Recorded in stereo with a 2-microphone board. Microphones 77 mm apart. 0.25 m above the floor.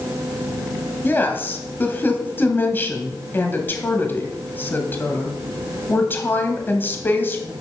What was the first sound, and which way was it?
A woman speaking, 25° left (ahead or behind).